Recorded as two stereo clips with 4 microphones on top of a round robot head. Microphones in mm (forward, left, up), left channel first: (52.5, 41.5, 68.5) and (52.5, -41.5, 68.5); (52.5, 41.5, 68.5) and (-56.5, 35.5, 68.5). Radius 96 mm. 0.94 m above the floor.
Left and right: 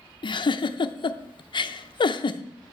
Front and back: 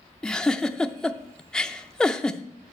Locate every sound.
0.2 s a giggle: 85° left, 0.7 m